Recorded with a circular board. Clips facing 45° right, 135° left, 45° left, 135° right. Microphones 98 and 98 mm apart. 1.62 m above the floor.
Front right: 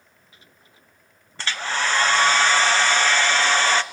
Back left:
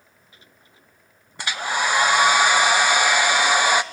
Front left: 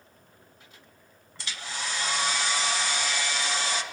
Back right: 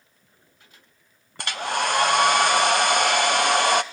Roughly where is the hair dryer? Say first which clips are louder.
Back left 2 dB, back right 12 dB; behind right.